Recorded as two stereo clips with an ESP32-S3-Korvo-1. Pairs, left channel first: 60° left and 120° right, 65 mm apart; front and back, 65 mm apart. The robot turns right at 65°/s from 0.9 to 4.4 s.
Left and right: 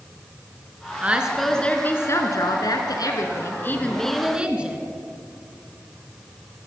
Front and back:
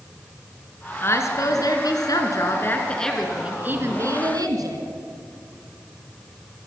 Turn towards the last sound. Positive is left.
turn(degrees=165)